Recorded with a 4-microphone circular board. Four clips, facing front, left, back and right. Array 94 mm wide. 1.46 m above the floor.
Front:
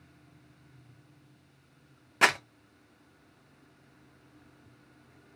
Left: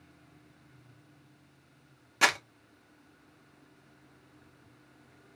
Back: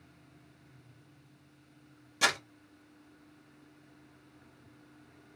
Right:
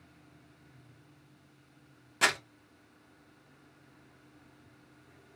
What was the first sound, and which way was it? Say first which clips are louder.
Crumpling: left 3 dB, front 5 dB; 10° left.